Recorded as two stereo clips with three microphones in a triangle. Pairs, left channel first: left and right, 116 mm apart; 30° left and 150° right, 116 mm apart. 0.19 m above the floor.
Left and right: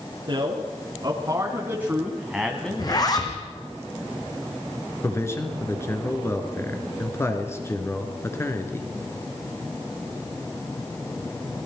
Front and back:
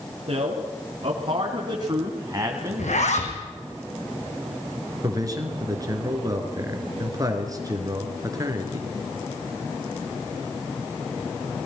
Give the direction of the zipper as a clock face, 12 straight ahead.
11 o'clock.